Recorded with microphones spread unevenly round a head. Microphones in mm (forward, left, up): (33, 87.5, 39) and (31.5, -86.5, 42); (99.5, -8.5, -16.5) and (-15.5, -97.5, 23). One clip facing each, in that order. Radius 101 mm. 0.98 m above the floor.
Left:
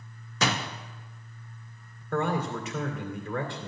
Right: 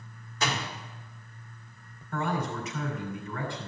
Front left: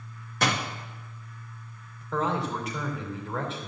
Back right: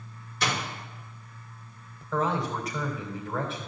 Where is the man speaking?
125° left, 2.5 m.